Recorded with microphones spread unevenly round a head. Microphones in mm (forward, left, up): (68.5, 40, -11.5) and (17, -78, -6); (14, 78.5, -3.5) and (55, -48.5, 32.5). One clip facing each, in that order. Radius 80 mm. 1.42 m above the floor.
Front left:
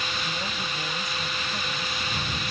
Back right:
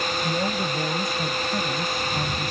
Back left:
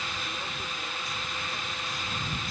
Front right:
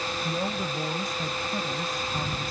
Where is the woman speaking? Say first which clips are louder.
Back right 8 dB, front right 9 dB; 110° right; by 2.5 s 115° right.